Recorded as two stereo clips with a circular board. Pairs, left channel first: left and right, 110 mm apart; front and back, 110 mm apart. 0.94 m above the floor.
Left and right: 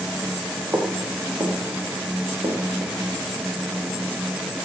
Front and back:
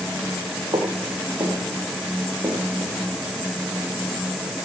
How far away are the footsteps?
About 2.5 m.